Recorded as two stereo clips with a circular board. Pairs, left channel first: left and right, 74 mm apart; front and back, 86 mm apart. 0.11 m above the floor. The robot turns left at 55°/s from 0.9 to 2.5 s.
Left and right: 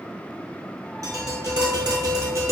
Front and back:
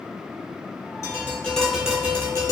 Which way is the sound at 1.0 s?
50° right.